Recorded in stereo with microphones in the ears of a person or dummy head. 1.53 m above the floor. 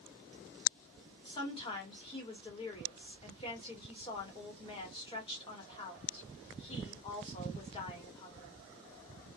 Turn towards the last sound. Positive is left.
turn(degrees=30)  # may be behind; listen again after turning